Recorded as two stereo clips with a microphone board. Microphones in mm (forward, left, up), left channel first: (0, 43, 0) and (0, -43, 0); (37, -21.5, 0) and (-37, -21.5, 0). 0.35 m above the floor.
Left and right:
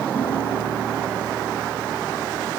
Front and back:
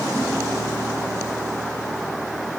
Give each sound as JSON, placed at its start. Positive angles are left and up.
{"t": 0.1, "sound": "a piano", "azimuth_deg": 90, "distance_m": 6.5}